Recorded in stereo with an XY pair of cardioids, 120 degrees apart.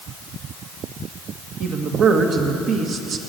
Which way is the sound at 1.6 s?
55° right.